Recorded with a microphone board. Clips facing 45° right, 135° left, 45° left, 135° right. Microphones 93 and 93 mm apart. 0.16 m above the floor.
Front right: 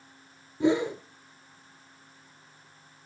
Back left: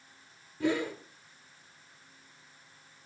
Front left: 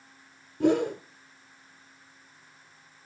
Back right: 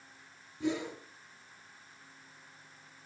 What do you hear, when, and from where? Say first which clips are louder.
0.6 s a whoosh: front right 6 dB, front left 11 dB; 20° left, 1.1 m